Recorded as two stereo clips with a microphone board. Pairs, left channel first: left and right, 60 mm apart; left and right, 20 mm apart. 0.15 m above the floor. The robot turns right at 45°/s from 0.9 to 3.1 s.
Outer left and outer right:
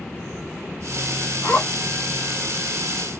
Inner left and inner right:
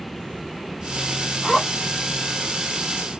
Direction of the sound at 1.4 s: 35° left (ahead or behind).